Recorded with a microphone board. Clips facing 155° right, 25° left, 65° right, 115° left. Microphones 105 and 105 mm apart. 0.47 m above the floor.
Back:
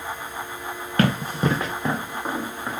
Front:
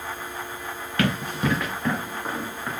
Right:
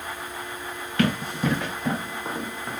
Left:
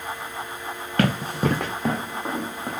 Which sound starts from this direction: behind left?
Running footsteps, at 1.0 s.